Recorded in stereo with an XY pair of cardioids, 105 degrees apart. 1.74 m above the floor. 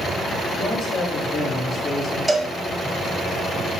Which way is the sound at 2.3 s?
15° right.